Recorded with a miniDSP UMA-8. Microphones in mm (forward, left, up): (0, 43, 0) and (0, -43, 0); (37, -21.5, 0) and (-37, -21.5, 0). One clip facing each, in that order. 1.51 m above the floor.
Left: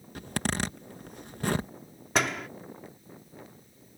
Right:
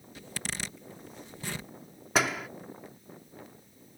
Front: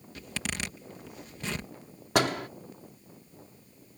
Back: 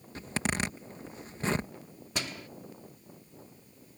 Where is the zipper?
125° left.